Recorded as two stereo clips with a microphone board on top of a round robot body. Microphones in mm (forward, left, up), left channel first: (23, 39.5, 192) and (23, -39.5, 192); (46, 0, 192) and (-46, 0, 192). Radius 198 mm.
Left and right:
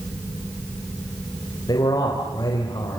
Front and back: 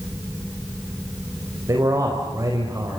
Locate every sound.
1.7 s a man speaking: 125° left, 4 m